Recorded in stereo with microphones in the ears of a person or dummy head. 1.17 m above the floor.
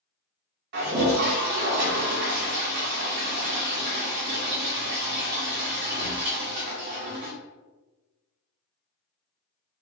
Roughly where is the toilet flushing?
Right.